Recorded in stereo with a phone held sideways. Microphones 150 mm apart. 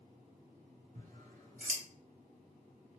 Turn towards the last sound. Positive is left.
turn(degrees=-60)  # may be behind; listen again after turning